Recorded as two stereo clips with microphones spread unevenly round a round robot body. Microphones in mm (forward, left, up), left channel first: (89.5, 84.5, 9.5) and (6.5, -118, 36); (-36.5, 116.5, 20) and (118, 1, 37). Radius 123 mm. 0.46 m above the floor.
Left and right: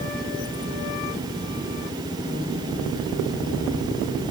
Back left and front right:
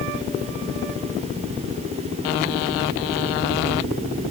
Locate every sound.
Only background noise.